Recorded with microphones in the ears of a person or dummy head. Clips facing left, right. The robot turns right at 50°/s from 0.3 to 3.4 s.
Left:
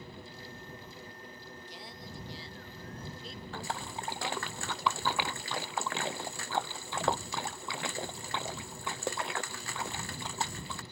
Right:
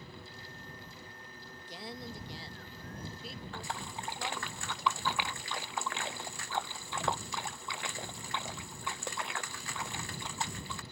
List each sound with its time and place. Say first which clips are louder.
1.4 s a woman speaking: right 7 dB; 95° right; by 4.5 s 5° left
3.5 s a splash: left 4 dB; 35° left (ahead or behind)